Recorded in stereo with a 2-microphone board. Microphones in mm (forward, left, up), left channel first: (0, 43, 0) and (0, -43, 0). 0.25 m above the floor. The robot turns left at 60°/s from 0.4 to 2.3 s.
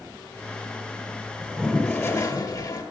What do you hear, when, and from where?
1.4 s a toilet flushing: 170° right, 2 m; by 2.8 s 140° left, 2 m